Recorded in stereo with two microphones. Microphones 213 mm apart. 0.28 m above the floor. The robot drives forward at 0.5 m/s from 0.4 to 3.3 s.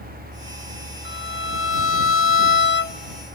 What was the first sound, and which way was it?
A violin, 60° left (ahead or behind).